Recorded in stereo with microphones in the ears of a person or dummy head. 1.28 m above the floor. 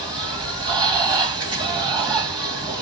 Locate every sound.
0.0 s running water: 25° right (ahead or behind), 1.7 m